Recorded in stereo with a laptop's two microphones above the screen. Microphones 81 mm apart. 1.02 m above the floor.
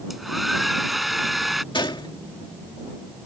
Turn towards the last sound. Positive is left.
turn(degrees=70)  # may be behind; listen again after turning